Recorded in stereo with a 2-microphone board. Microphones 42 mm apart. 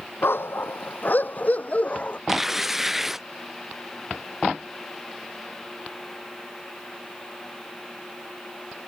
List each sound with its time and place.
0.2 s a dog barking: 65° left (ahead or behind); by 2.2 s 30° left (ahead or behind)
2.3 s tearing paper: 10° right (ahead or behind)